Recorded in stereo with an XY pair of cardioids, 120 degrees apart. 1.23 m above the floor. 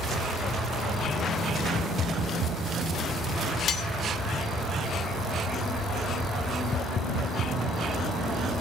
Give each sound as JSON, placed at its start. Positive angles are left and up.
{"t": 3.7, "sound": "cutlery clinking", "azimuth_deg": 60, "distance_m": 0.9}